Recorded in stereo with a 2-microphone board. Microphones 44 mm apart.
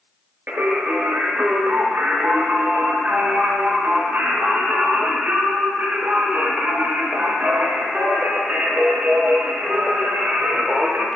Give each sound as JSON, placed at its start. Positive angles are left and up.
{"t": 0.5, "sound": "singing", "side_deg": -40, "distance_m": 0.5}